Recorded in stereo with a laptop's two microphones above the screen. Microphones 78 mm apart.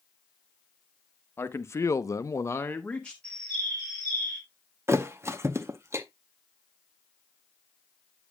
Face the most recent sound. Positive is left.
turn(degrees=-35)  # may be behind; listen again after turning